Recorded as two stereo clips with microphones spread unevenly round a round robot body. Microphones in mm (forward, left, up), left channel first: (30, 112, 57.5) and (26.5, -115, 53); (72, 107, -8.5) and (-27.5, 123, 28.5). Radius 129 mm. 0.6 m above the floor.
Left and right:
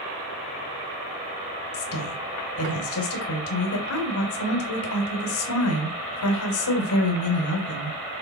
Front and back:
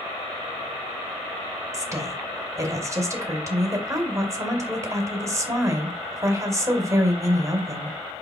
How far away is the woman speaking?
About 2.5 m.